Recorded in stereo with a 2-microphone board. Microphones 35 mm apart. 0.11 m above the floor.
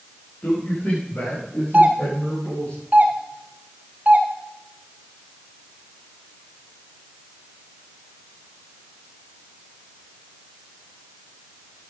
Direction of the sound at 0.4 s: 55° left (ahead or behind).